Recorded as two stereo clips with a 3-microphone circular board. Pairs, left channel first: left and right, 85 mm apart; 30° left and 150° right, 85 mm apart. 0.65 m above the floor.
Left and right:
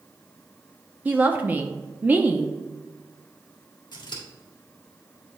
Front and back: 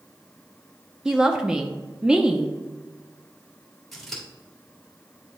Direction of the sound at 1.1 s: 90° right.